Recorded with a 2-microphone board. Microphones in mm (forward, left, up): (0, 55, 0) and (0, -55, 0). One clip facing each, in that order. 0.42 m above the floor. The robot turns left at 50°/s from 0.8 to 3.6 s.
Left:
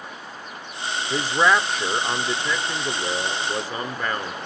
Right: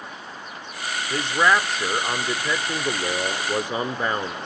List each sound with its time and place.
1.1 s a man speaking: 10° left (ahead or behind), 0.8 m; by 4.4 s 20° right (ahead or behind), 0.8 m